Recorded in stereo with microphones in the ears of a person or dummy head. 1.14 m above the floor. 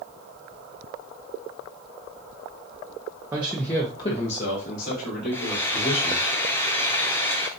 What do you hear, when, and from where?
3.3 s a man speaking: 15° right (ahead or behind), 0.6 m; by 6.3 s 65° left (ahead or behind), 2.5 m
5.3 s frying: 15° left (ahead or behind), 0.6 m